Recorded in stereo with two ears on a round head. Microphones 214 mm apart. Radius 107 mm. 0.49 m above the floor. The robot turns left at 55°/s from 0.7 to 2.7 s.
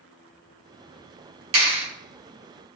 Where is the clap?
60° right (ahead or behind), 1.9 m; by 1.9 s 45° right (ahead or behind), 1.9 m.